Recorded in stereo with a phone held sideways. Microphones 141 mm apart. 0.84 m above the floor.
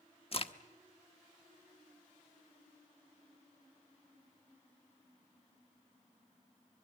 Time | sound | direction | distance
0.3 | a crack | 45° left (ahead or behind) | 0.8 m